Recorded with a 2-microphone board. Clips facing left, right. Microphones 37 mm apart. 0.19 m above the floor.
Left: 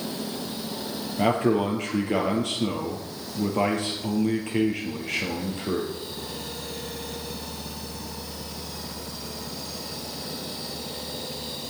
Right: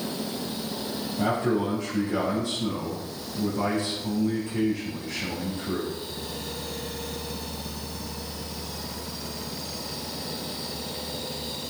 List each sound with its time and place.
1.2 s a man speaking: 60° left (ahead or behind), 4 m